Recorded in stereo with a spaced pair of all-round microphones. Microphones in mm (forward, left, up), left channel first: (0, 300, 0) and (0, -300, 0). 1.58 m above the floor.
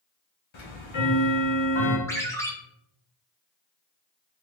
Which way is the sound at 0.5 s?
50° left (ahead or behind).